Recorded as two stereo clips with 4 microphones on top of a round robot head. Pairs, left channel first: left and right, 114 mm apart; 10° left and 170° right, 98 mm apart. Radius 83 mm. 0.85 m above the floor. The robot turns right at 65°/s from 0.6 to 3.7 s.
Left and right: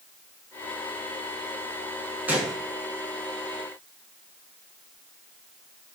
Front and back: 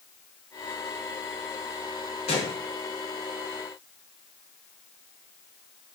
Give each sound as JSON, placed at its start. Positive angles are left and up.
{"t": 2.3, "sound": "a gunshot", "azimuth_deg": -15, "distance_m": 6.0}